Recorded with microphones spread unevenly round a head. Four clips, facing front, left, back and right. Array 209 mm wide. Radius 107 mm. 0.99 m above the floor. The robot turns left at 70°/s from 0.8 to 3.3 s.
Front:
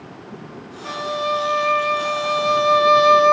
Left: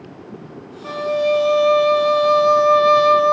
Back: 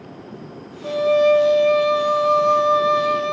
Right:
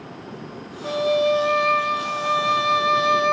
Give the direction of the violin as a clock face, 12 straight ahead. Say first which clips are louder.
Left 1 dB, back 9 dB; 5 o'clock.